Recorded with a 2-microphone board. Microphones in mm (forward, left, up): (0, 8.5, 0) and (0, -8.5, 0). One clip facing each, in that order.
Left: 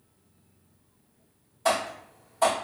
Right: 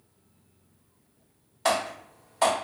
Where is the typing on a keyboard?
50° right (ahead or behind), 1.6 m.